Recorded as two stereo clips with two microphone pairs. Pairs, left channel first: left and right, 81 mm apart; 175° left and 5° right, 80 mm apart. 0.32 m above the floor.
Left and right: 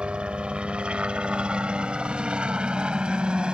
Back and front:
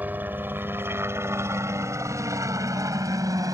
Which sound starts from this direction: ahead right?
A helicopter, at 0.0 s.